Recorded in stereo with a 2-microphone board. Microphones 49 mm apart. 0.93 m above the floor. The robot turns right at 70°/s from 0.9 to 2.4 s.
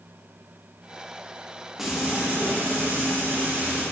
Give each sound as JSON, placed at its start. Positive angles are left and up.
{"t": 1.8, "sound": "frying", "azimuth_deg": -175, "distance_m": 1.1}